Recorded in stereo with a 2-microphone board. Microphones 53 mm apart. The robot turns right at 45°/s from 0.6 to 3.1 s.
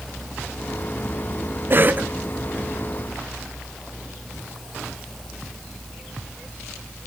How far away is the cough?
About 0.5 m.